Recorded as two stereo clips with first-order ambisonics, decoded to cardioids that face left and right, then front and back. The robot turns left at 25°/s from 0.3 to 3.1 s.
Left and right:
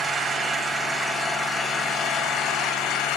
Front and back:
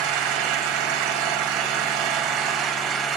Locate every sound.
0.0 s an engine running: 165° right, 1.2 m; by 3.2 s 125° left, 1.2 m